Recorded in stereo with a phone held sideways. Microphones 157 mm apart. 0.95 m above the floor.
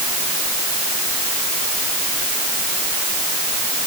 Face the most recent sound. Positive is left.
No sound to turn to.